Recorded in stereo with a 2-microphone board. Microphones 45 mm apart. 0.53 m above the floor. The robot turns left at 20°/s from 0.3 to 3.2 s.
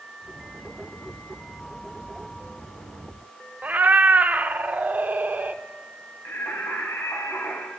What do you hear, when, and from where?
3.6 s a cat meowing: 40° right (ahead or behind), 0.5 m
6.2 s singing: 80° left, 2.5 m